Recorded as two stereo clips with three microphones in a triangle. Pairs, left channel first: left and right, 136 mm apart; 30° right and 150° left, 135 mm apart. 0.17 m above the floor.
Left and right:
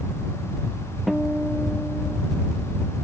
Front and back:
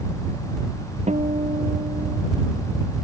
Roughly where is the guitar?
Behind.